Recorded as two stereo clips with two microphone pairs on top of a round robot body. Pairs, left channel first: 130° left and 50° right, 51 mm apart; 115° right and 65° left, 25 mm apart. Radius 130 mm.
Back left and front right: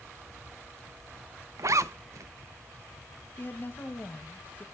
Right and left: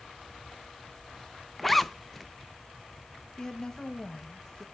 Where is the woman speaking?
Straight behind, 1.0 m.